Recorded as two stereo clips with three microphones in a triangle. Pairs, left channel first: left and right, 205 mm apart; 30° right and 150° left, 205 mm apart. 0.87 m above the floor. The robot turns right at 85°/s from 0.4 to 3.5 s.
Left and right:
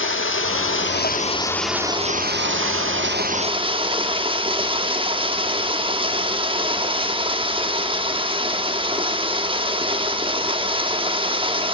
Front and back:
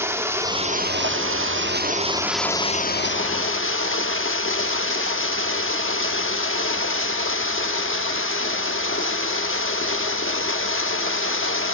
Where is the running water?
75° left, 1.0 m; by 11.7 s 25° right, 1.0 m.